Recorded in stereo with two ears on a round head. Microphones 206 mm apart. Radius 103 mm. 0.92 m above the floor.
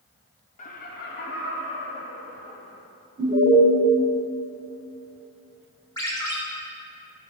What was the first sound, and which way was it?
Laughter, 30° left (ahead or behind).